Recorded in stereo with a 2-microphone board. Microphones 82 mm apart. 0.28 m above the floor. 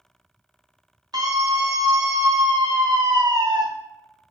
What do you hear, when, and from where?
1.1 s a scream: 55° right (ahead or behind), 2.5 m